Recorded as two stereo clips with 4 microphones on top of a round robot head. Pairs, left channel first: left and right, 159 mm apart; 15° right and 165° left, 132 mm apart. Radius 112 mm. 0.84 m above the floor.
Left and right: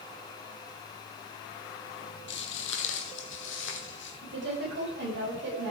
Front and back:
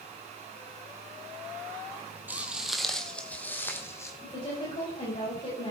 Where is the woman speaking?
80° right, 5 m.